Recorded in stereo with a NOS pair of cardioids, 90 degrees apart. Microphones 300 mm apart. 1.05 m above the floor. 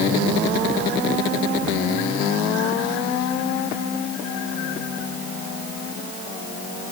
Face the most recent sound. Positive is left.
No sound to turn to.